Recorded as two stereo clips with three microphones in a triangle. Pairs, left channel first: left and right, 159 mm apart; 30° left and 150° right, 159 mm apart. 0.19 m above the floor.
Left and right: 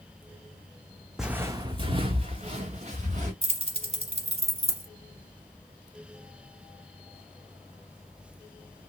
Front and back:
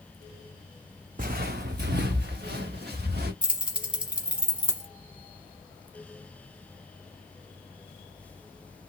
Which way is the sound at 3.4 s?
70° right.